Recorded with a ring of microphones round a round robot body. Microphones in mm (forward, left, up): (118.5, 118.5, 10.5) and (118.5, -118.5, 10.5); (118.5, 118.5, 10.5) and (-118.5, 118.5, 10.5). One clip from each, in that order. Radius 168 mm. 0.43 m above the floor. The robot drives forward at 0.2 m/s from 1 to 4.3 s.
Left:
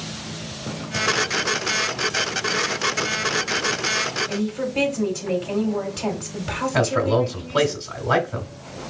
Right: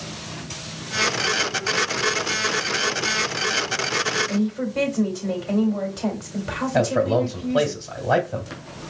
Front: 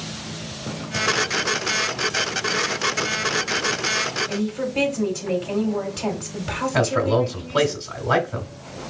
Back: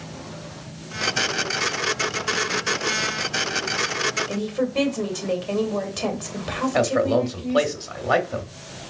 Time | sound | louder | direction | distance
4.3 | a woman speaking | left 1 dB, back 1 dB | 175° left | 2 m
6.7 | a man speaking | even, even | 155° left | 1.4 m